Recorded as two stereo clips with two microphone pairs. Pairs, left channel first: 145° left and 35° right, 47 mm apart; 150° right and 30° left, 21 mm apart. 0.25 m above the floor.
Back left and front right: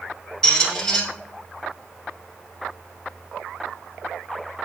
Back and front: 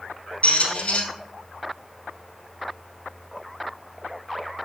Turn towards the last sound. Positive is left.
turn(degrees=-135)